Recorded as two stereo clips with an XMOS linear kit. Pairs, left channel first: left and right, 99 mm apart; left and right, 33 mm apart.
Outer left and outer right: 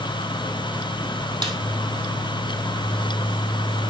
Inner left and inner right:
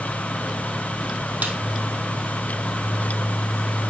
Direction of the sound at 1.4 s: 50° right (ahead or behind).